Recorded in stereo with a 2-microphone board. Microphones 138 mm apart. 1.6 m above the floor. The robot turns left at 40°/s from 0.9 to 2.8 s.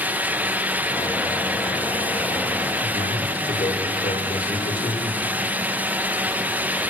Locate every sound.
2.8 s a man speaking: 75° left (ahead or behind), 6.5 m